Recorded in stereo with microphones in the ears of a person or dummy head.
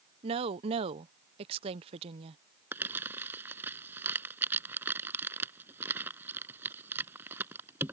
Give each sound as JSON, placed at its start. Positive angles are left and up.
{"t": 0.2, "sound": "a woman speaking", "side_deg": -35}
{"t": 2.7, "sound": "crumpling", "side_deg": -15}